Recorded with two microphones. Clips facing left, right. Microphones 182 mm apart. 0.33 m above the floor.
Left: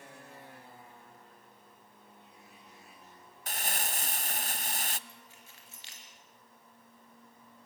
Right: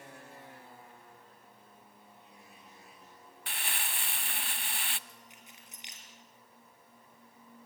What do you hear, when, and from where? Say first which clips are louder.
3.5 s crumpling: left 4 dB; 40° left (ahead or behind), 0.6 m
5.1 s keys jangling: even; 15° right (ahead or behind), 4.5 m